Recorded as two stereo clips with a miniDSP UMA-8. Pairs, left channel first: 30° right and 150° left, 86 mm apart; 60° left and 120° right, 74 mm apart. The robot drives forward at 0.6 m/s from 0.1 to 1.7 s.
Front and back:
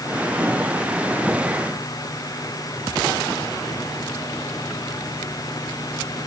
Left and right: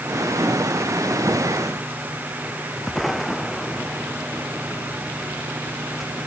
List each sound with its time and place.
Only background noise.